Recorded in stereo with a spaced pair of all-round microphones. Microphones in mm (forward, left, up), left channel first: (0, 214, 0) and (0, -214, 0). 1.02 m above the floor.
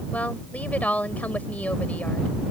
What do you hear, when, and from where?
0.1 s a woman speaking: 5° left (ahead or behind)